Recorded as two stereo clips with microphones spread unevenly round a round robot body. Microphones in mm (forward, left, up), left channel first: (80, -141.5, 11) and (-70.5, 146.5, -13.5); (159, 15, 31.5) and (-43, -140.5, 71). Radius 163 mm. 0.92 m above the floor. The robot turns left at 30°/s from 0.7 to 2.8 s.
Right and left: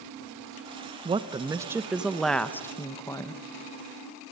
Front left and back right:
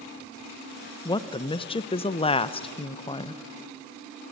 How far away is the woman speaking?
About 0.8 m.